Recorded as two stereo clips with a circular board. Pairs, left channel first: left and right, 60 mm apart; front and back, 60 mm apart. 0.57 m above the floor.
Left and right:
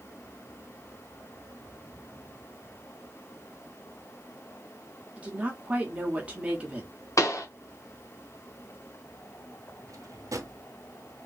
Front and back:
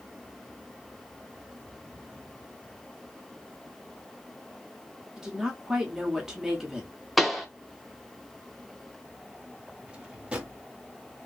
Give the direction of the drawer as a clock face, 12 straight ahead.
4 o'clock.